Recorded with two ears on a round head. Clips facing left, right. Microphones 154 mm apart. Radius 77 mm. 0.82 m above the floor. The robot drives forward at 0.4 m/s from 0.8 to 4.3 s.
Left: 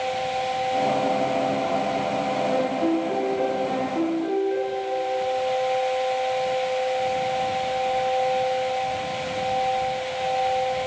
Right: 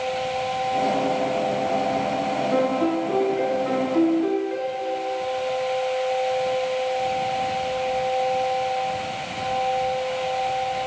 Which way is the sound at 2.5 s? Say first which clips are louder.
Right 2 dB; 75° right (ahead or behind).